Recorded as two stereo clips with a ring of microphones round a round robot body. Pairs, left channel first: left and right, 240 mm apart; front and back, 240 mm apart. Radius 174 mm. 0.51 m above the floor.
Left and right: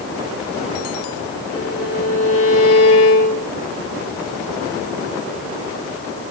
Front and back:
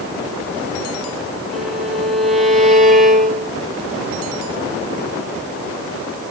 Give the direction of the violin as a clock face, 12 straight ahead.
9 o'clock.